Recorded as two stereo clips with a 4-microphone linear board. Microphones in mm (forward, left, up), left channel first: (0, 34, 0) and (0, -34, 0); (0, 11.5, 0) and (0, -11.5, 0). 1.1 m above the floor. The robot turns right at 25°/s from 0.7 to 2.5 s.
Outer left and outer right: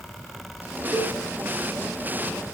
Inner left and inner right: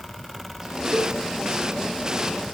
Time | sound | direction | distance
0.9 | a cowbell | 5° left (ahead or behind) | 5.5 m